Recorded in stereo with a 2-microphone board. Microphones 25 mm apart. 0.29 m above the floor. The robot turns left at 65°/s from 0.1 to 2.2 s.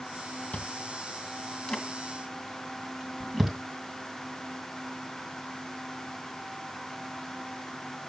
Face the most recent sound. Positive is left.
turn(degrees=0)  # may be behind; listen again after turning